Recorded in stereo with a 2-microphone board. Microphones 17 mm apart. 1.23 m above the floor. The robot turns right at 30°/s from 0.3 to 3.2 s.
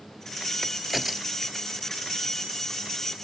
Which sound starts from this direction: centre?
A crack, at 0.6 s.